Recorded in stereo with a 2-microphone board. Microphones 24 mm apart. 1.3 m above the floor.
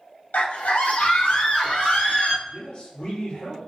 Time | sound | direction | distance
0.3 | a scream | 80° left | 0.7 m
2.5 | a man speaking | 65° left (ahead or behind) | 1.6 m